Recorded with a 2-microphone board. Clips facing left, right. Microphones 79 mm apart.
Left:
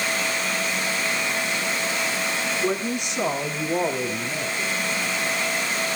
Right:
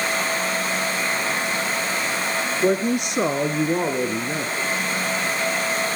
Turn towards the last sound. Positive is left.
turn(degrees=-70)  # may be behind; listen again after turning